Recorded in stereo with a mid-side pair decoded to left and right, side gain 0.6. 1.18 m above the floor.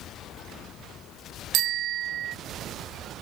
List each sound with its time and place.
1.5 s a bicycle bell: 60° right